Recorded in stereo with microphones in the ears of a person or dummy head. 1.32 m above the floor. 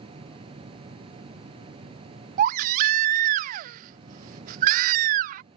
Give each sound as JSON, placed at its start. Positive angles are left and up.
{"t": 0.0, "sound": "a machine running", "side_deg": -25}
{"t": 2.4, "sound": "a baby crying", "side_deg": -45}